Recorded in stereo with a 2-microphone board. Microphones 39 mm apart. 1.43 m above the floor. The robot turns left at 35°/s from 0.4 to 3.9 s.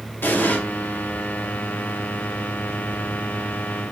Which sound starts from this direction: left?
An explosion, at 0.2 s.